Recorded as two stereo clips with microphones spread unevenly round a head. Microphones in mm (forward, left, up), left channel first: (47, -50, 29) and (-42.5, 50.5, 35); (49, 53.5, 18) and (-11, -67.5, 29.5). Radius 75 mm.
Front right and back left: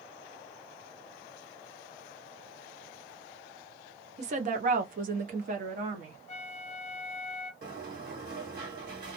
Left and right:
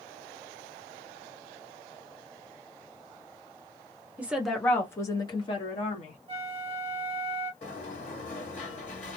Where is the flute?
75° right, 0.8 m.